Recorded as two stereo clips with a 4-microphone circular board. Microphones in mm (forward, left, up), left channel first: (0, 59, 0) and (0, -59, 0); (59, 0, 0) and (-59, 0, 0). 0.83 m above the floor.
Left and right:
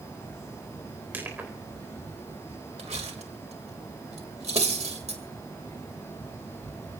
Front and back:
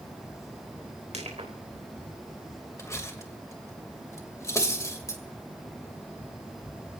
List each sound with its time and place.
1.1 s crushing: 165° right, 4 m
2.8 s cutlery clinking: 65° right, 2.5 m